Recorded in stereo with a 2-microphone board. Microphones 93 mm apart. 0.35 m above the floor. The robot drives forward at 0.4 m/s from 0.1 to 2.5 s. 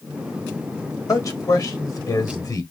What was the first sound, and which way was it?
A man speaking, 40° left (ahead or behind).